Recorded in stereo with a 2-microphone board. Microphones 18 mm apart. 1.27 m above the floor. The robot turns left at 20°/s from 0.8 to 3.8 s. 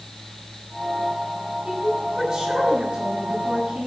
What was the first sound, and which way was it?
A woman speaking, 20° right.